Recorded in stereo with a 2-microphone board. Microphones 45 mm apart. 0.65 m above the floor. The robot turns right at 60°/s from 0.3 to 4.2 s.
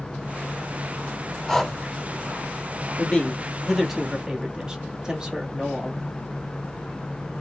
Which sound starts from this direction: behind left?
A man speaking, at 3.0 s.